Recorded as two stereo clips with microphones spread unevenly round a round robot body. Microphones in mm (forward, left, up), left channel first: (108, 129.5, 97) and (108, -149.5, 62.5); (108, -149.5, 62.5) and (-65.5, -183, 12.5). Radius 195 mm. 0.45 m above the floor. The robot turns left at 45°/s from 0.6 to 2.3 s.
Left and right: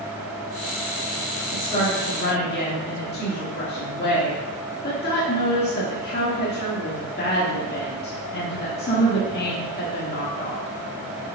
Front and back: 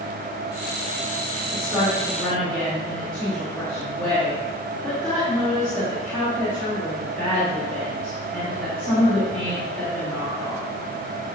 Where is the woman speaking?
160° left, 1.4 m; by 10.7 s 125° left, 1.4 m.